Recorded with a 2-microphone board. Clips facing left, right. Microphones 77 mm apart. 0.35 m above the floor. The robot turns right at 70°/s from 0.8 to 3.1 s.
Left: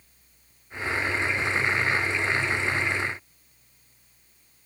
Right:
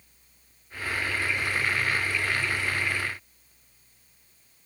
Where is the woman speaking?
I don't hear a woman speaking.